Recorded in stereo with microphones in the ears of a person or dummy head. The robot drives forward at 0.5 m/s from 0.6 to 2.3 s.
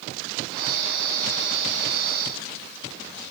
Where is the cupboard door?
No cupboard door in this recording.